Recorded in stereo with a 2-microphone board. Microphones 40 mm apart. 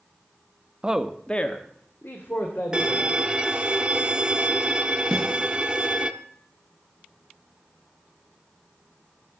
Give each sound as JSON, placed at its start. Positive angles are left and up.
{"t": 0.8, "sound": "a man speaking", "side_deg": -25, "distance_m": 0.7}
{"t": 2.7, "sound": "a violin", "side_deg": -25, "distance_m": 0.7}
{"t": 5.1, "sound": "a snare drum", "side_deg": 25, "distance_m": 4.0}